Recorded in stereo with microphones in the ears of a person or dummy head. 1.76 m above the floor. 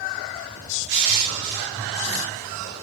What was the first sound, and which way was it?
Crushing, 65° right (ahead or behind).